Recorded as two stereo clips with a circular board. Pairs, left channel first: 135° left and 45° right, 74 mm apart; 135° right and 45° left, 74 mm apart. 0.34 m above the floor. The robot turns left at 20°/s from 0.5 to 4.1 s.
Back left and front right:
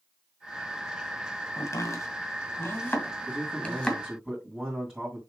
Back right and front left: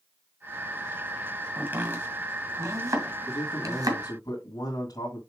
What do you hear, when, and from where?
1.6 s chopping: 110° left, 2.0 m; by 4.0 s 60° left, 2.0 m
3.3 s a man speaking: 115° right, 3 m; by 5.2 s 130° right, 3 m